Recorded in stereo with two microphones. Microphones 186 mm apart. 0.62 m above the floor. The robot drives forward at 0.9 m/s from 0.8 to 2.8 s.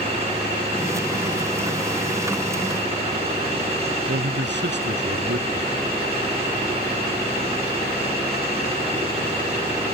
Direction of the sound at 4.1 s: 75° right (ahead or behind).